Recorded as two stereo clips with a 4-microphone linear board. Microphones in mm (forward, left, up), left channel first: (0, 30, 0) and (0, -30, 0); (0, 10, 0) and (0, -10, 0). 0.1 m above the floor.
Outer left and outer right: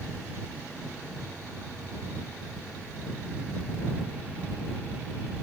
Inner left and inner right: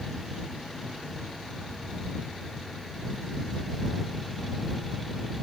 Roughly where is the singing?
No singing in this recording.